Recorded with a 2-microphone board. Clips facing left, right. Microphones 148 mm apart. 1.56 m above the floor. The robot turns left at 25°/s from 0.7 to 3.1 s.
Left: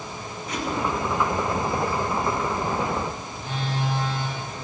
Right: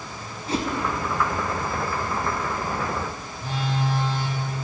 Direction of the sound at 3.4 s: 35° right (ahead or behind).